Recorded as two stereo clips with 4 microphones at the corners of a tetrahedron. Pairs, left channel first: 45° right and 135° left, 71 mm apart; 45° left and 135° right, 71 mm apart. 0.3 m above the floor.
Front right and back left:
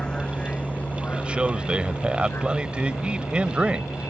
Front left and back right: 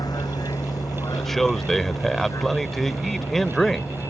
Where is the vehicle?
30° left; by 4.1 s straight ahead.